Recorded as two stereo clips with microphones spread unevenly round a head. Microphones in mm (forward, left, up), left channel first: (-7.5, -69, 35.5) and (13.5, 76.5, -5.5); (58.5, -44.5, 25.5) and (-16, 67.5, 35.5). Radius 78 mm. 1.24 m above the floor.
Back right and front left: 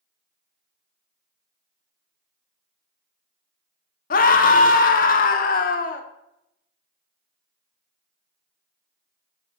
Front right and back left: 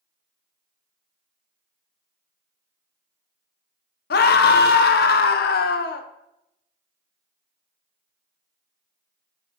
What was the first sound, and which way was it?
A scream, 65° right.